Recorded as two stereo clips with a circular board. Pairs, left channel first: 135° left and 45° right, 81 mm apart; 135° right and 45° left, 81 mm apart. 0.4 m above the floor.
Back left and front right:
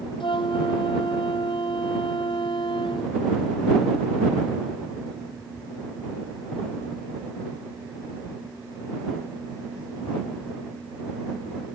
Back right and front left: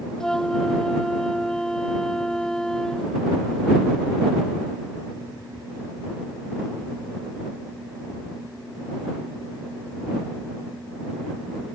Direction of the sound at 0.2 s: 145° left.